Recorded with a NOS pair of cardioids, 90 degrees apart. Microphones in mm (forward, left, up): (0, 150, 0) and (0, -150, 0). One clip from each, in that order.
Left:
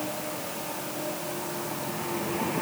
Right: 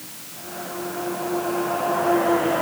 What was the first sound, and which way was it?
Only background noise.